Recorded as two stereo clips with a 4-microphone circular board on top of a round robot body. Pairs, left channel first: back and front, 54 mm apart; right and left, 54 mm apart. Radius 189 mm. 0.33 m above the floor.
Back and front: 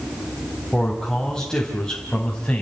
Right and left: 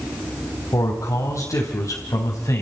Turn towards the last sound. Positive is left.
turn(degrees=-105)